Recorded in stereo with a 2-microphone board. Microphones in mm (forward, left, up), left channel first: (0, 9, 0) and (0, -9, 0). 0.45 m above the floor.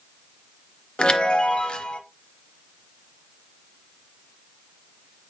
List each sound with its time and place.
1.0 s a chime: 65° left (ahead or behind), 0.7 m